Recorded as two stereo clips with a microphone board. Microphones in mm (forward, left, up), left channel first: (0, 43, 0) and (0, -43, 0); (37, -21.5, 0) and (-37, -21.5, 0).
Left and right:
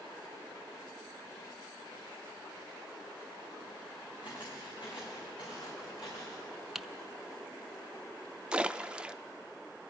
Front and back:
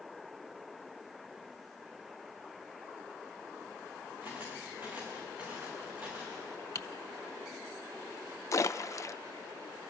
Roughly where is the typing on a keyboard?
Ahead.